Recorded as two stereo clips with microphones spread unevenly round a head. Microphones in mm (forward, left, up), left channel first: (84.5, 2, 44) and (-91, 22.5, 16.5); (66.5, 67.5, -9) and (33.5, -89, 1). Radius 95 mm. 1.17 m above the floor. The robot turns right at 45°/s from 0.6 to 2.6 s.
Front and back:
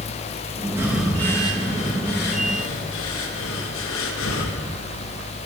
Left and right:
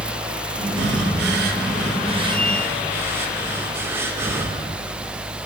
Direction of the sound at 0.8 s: 110° right.